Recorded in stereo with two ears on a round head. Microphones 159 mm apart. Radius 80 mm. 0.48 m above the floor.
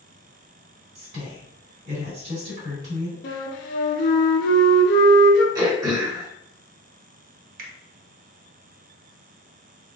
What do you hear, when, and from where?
0.9 s a woman speaking: 55° right (ahead or behind), 2 m
3.2 s a flute: 65° left (ahead or behind), 1.3 m
5.5 s throat clearing: 20° right (ahead or behind), 1.3 m
7.6 s a finger snap: 55° right (ahead or behind), 1.0 m